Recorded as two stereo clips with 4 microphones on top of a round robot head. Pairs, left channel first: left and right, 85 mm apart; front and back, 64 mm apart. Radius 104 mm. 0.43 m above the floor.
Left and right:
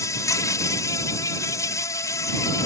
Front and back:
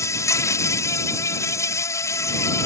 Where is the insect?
35° left.